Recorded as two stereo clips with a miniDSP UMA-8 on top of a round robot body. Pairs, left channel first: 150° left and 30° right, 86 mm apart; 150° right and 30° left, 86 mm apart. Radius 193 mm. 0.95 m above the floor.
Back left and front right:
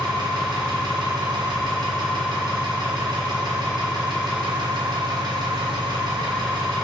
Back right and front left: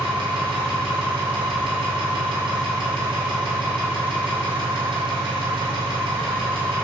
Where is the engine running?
10° left, 2.5 m.